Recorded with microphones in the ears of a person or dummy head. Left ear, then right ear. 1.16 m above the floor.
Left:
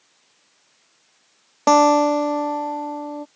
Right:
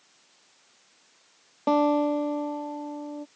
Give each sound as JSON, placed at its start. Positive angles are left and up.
{"t": 1.7, "sound": "a guitar", "side_deg": 60}